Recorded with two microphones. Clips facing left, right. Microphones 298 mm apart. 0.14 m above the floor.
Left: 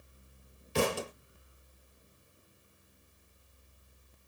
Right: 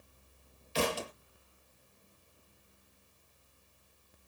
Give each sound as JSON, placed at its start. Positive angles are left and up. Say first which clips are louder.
{"t": 0.8, "sound": "a thud", "louder": "left 3 dB", "side_deg": 60, "distance_m": 1.3}